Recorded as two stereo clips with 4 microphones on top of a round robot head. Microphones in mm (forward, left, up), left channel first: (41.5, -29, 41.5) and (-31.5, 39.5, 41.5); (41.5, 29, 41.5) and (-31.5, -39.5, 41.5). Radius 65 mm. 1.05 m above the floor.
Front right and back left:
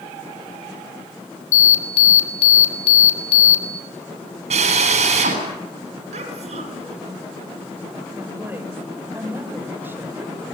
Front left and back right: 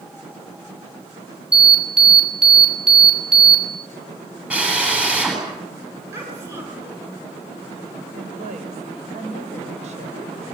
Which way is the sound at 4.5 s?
145° left.